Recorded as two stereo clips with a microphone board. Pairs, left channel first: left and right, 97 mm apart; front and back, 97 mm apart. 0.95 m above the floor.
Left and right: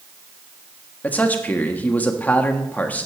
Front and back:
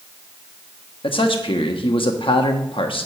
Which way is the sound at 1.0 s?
20° left.